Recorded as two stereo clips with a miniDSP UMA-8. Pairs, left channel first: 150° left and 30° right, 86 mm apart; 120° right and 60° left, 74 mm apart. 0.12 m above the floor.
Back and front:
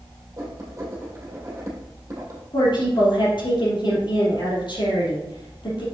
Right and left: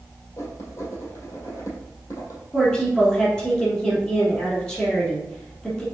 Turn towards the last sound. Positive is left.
turn(degrees=160)